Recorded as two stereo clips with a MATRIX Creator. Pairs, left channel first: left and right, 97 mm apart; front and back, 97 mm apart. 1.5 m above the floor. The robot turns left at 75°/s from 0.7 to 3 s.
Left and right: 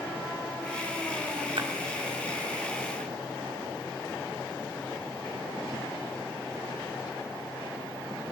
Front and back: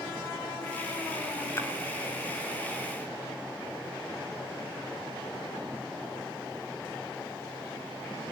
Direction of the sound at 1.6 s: 60° right.